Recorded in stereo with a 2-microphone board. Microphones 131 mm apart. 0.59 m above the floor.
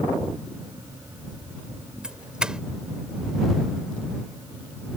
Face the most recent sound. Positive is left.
turn(degrees=-5)  # may be behind; listen again after turning